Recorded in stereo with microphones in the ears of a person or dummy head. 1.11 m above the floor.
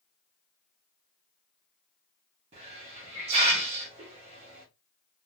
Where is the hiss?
30° right (ahead or behind), 0.8 m.